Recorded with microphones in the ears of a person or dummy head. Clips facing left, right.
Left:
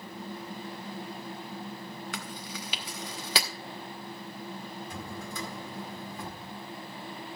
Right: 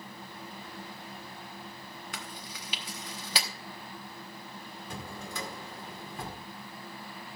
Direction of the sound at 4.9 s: 70° right (ahead or behind).